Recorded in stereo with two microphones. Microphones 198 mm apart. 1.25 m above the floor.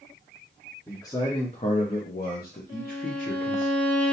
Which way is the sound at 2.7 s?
30° left (ahead or behind).